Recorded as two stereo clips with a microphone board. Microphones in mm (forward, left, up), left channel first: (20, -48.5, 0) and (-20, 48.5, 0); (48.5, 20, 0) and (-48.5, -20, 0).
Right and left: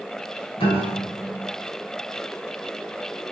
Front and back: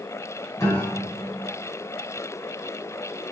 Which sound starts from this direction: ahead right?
A piano, at 0.6 s.